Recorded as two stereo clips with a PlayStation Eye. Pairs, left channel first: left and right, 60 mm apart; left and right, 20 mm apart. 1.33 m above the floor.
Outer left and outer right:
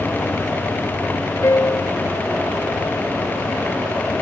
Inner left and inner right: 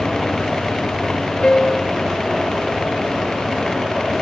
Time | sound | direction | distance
1.4 | a piano | 55° left (ahead or behind) | ?